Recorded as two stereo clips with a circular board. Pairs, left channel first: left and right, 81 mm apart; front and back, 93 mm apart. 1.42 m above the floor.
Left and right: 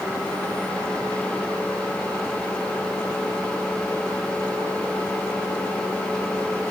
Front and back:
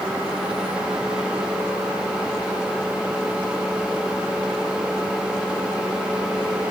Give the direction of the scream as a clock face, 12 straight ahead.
No scream in this recording.